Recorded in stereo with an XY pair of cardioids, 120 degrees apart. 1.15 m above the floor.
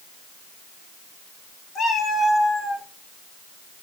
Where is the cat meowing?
45° left, 1.8 m; by 2.9 s 35° left, 2.5 m.